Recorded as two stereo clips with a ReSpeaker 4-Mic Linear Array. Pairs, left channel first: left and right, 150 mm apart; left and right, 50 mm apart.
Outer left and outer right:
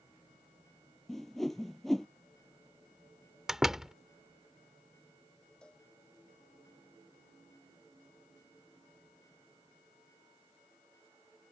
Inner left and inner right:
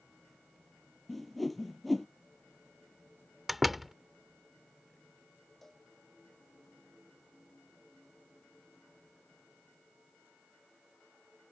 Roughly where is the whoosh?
Centre.